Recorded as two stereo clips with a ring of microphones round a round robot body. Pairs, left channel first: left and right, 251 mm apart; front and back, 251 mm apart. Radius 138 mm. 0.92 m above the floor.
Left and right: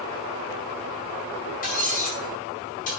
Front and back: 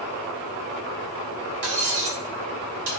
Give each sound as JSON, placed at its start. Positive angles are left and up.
{"t": 1.6, "sound": "cutlery clinking", "azimuth_deg": 155, "distance_m": 4.5}